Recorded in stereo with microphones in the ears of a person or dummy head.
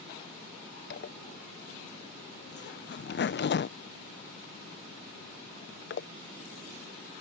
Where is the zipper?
45° left (ahead or behind).